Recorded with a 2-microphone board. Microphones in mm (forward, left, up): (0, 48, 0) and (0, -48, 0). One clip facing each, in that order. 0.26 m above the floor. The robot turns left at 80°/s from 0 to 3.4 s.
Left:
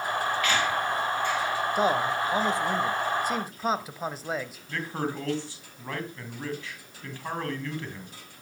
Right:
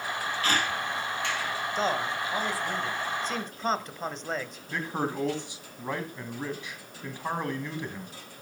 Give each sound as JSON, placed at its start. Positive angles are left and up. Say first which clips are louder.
{"t": 0.4, "sound": "a squeak", "louder": "right 1 dB", "side_deg": -35, "distance_m": 3.0}
{"t": 1.8, "sound": "a man speaking", "louder": "left 4 dB", "side_deg": 10, "distance_m": 1.1}
{"t": 4.7, "sound": "a man speaking", "louder": "right 1 dB", "side_deg": -15, "distance_m": 2.5}